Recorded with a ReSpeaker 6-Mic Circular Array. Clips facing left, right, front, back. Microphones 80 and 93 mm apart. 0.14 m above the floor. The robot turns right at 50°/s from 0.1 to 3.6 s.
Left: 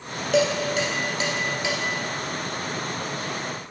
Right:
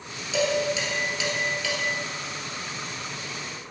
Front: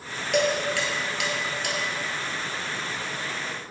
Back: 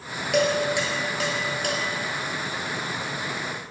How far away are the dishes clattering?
About 1.6 m.